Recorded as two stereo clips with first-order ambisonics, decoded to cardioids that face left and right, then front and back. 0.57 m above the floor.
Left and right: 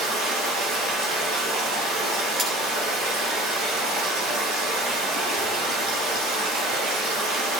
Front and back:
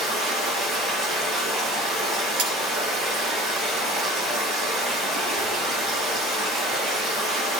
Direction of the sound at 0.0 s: 110° right.